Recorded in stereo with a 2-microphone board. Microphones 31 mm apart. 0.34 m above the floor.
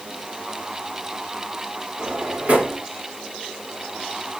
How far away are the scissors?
I don't hear scissors.